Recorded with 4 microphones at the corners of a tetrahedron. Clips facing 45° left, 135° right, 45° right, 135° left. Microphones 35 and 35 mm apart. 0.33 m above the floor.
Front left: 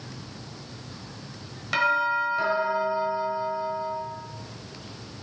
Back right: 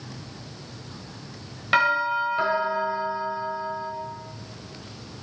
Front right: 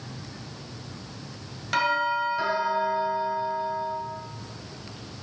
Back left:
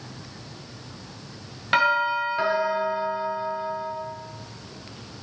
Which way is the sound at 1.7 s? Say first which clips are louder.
Back right 2 dB, back left 3 dB; 175° left.